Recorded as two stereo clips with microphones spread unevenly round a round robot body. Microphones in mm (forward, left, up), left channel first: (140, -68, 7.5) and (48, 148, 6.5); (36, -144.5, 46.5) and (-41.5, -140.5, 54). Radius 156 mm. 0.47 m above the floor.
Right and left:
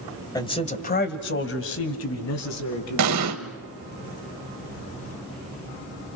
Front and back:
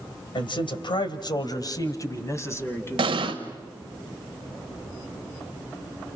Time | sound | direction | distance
0.3 | a man speaking | 10° left | 2 m
3.0 | an explosion | 150° left | 1.0 m